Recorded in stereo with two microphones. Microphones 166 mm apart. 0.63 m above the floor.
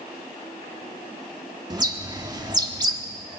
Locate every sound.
1.7 s a bird: 25° right (ahead or behind), 1.4 m